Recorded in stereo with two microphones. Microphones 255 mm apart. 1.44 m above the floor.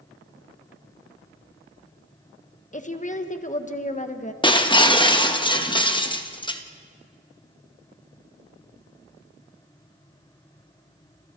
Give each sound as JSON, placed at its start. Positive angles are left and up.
{"t": 2.7, "sound": "a woman speaking", "side_deg": 30, "distance_m": 1.3}
{"t": 4.4, "sound": "breaking glass", "side_deg": 20, "distance_m": 1.2}